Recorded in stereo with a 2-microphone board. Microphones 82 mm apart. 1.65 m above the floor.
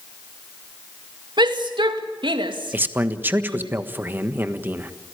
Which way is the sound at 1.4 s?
65° right (ahead or behind).